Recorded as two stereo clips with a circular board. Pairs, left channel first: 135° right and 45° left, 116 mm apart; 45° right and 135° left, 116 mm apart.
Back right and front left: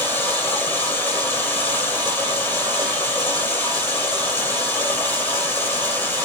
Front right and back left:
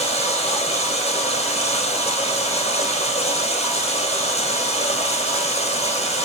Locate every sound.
0.0 s running water: 65° right, 3 m